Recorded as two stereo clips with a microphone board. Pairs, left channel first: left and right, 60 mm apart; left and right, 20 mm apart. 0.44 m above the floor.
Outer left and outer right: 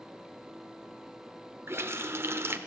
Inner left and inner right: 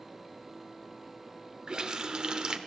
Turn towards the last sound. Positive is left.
turn(degrees=-40)  # may be behind; listen again after turning